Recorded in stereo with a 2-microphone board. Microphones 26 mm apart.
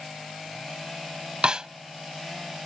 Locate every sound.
1.4 s a snare drum: 45° right (ahead or behind)